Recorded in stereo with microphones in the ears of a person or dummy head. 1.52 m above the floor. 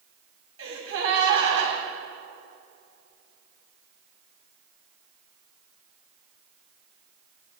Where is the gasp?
85° right, 7.5 m.